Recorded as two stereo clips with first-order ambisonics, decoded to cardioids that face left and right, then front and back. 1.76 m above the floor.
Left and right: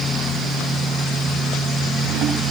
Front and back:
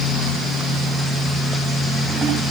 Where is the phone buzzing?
I don't hear a phone buzzing.